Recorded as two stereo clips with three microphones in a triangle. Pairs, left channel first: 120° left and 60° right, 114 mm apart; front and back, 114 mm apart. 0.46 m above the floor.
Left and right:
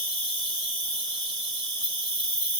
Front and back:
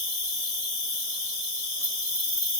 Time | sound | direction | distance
0.0 | an insect | 175° left | 1.8 m